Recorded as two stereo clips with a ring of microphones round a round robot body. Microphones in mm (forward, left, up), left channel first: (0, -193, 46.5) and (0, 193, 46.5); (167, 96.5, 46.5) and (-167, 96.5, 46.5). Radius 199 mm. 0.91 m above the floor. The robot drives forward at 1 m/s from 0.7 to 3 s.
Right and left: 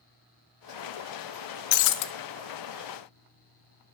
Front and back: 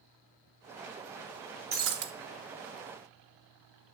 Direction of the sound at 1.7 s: 105° right.